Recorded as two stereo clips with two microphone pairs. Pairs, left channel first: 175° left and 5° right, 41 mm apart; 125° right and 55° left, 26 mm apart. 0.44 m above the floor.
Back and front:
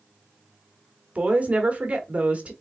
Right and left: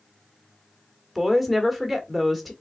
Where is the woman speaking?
30° right, 1.1 m.